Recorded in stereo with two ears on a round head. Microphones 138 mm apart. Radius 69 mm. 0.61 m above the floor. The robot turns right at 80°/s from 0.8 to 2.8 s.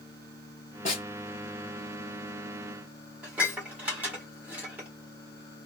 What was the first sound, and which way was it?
A snare drum, 45° left (ahead or behind).